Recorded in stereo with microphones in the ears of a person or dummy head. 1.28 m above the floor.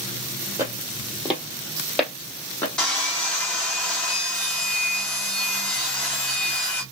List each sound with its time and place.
0.6 s footsteps: 15° right (ahead or behind), 2.5 m; by 2.7 s 10° left (ahead or behind), 2.5 m
2.8 s sawing: 10° left (ahead or behind), 1.9 m